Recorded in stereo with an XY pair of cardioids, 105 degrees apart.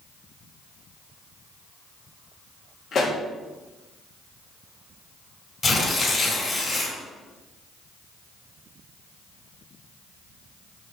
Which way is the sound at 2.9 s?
50° left.